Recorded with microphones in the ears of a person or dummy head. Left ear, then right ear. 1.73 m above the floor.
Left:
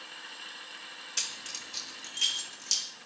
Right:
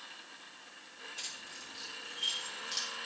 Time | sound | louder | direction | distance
1.2 | keys jangling | left 9 dB | 50° left (ahead or behind) | 1.5 m